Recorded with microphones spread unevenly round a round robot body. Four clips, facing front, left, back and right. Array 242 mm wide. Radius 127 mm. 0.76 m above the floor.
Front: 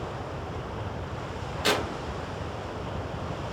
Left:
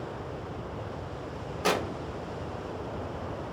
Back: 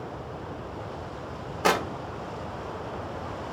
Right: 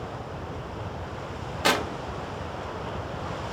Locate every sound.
1.6 s tearing paper: 150° right, 0.8 m